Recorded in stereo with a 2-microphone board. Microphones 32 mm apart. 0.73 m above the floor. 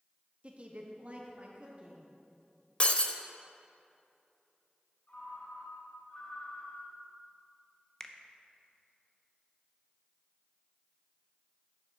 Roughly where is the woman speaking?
Right.